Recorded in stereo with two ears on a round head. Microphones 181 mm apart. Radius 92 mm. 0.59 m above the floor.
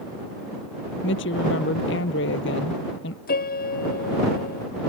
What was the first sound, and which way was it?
A woman speaking, 60° left (ahead or behind).